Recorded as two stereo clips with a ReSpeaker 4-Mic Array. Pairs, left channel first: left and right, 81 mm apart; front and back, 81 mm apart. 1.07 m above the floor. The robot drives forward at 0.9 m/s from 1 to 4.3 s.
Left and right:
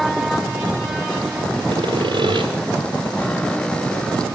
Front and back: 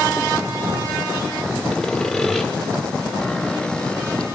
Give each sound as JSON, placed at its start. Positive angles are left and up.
{"t": 1.7, "sound": "sawing", "azimuth_deg": -85, "distance_m": 5.5}